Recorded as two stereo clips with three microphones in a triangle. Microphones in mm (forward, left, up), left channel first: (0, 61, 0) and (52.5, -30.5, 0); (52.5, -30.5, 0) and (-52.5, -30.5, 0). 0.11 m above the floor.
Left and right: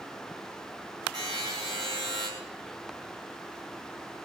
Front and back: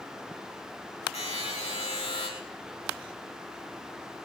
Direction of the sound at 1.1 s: 10° right.